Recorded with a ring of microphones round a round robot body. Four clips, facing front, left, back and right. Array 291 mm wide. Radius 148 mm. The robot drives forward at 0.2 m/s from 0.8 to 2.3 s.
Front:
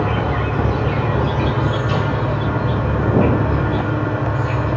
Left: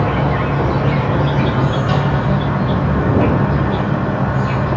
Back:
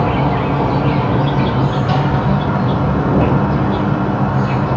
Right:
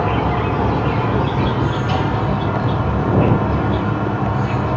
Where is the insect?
155° left, 1.0 m; by 4.8 s 160° left, 1.3 m.